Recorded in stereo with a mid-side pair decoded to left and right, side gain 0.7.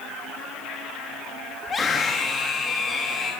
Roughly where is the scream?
Ahead left.